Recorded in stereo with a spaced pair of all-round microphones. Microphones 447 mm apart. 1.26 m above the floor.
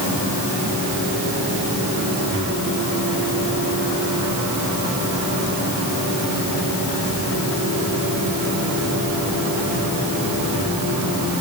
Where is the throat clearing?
I don't hear throat clearing.